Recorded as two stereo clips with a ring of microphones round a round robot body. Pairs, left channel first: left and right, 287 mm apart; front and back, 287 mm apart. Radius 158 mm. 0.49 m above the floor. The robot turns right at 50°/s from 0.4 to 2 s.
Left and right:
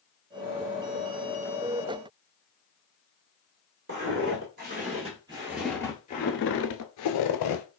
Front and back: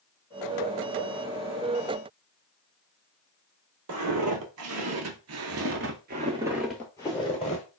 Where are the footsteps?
145° right, 1.2 m; by 7.6 s 65° left, 0.9 m.